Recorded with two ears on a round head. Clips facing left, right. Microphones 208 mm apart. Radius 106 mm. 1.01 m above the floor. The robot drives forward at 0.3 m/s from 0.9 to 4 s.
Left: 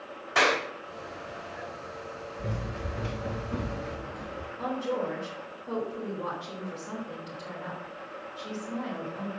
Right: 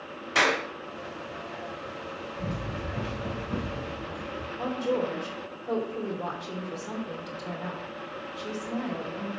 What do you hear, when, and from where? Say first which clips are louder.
0.3 s a clap: left 1 dB; 50° right (ahead or behind), 5 m
2.4 s running footsteps: right 2 dB; 50° right (ahead or behind), 5.5 m; by 4.5 s 30° right (ahead or behind), 3.5 m
4.6 s a woman speaking: right 3 dB; 50° right (ahead or behind), 3.5 m